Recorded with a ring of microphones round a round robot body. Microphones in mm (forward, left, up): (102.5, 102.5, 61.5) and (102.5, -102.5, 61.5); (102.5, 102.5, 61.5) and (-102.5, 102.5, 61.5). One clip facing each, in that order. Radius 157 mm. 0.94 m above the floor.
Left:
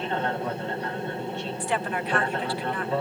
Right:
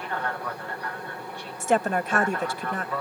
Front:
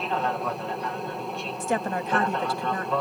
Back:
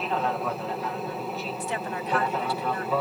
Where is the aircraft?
95° left; by 3.0 s 100° left.